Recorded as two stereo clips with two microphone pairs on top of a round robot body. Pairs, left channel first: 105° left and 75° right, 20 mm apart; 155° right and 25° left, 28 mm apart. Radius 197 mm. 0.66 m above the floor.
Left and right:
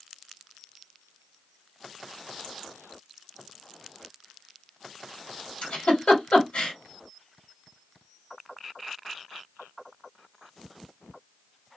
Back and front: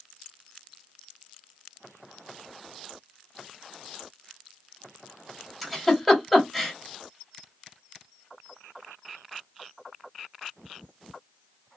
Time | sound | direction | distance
5.6 | a giggle | 120° left | 2.0 m